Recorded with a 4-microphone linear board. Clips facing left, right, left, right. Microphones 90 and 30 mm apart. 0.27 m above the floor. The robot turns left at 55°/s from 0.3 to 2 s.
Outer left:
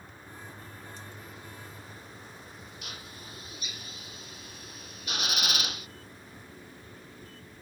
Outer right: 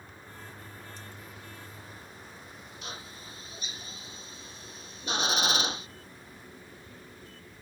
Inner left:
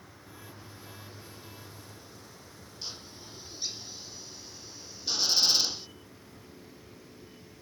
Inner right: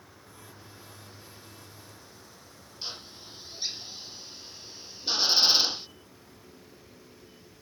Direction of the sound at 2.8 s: 30° right (ahead or behind).